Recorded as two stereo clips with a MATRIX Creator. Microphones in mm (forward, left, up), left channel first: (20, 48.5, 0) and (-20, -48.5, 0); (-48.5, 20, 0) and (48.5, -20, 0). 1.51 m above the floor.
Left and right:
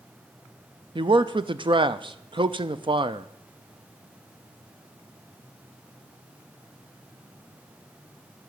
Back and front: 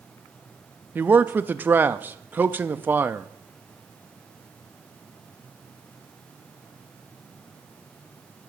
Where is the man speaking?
90° right, 0.5 m.